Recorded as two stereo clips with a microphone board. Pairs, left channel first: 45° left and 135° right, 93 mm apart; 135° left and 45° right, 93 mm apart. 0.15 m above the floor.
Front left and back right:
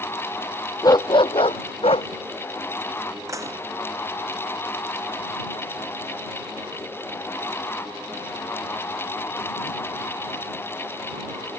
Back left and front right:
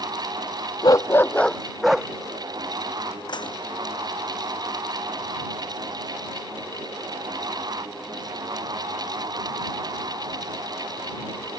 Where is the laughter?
I don't hear laughter.